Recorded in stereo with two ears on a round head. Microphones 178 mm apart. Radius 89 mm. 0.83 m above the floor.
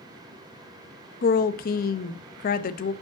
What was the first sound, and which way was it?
A woman speaking, 45° left (ahead or behind).